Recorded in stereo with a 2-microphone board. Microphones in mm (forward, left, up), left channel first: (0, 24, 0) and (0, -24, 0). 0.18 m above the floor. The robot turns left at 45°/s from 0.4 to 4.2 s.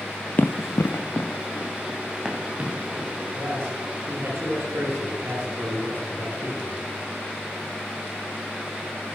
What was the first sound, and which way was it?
Running footsteps, 40° left (ahead or behind).